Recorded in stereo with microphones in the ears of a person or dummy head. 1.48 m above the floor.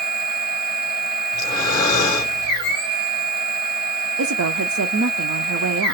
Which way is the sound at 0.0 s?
55° right (ahead or behind).